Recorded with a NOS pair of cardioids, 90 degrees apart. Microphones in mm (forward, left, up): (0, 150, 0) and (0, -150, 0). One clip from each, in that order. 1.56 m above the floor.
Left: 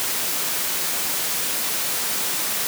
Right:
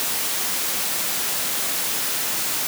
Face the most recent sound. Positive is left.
No sound to turn to.